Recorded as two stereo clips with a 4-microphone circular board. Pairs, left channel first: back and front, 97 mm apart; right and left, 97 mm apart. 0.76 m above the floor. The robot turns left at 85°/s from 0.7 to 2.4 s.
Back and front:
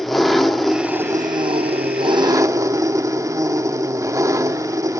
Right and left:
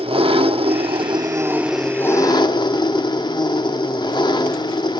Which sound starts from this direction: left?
An engine running, at 0.0 s.